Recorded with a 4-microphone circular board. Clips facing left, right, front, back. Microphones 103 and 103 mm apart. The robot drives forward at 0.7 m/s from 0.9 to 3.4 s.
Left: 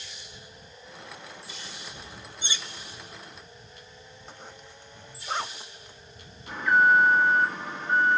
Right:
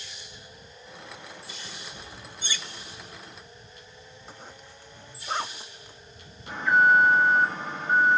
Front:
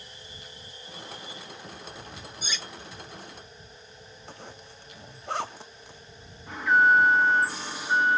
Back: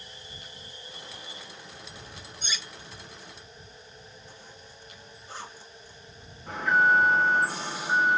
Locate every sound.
2.4 s cutlery clinking: 70° left, 0.5 m; by 2.7 s 120° left, 0.5 m
4.3 s a zipper: 5° right, 0.5 m
6.5 s an alarm: 155° right, 2 m